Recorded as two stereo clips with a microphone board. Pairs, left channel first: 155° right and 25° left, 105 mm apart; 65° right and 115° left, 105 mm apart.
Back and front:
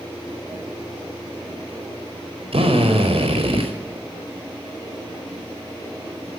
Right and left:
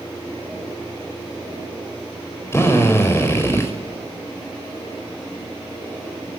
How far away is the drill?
About 5 m.